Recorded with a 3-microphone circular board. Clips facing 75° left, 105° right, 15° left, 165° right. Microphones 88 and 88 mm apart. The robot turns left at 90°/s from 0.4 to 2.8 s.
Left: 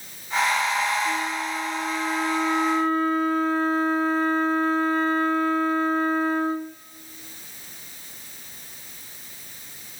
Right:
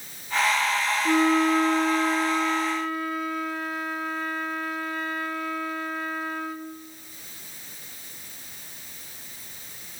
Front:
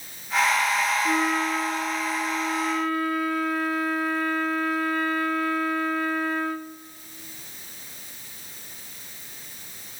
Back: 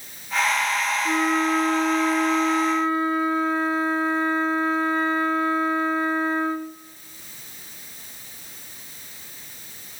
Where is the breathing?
I don't hear breathing.